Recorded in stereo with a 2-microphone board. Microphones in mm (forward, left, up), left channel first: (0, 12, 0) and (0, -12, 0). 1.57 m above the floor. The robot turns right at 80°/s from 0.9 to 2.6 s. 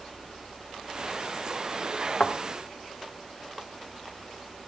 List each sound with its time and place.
2.2 s a thud: 55° left (ahead or behind), 1.8 m; by 2.3 s 50° left (ahead or behind), 1.8 m